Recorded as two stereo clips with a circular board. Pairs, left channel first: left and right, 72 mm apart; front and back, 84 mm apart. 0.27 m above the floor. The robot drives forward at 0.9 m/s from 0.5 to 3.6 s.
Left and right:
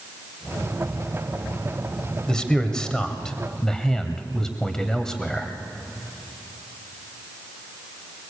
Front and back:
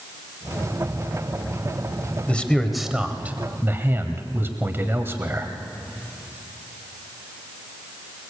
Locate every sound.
2.3 s a man speaking: 30° left, 1.5 m; by 5.5 s 160° left, 1.7 m